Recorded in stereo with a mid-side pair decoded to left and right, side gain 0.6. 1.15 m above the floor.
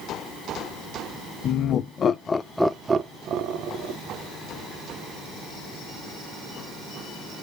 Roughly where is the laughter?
Ahead left.